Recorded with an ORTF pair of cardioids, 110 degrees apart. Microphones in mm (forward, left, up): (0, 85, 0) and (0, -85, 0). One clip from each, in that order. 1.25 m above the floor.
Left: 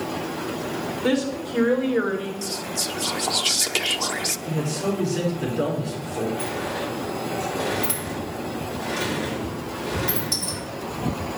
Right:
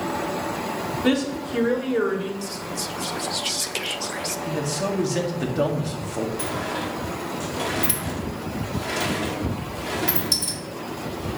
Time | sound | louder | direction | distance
1.0 | a woman speaking | even | 25° right | 3.5 m
2.4 | whispering | left 2 dB | 20° left | 0.5 m
4.5 | a man speaking | right 1 dB | 65° right | 3 m
6.4 | a sliding door | even | 40° right | 2.0 m